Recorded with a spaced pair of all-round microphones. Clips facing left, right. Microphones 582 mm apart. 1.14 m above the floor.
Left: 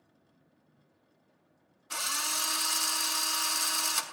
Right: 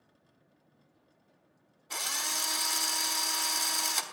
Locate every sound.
1.9 s a drill: 35° left (ahead or behind), 1.2 m